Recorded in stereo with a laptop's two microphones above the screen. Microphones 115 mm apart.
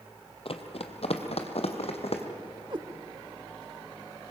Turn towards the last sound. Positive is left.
turn(degrees=-45)  # may be behind; listen again after turning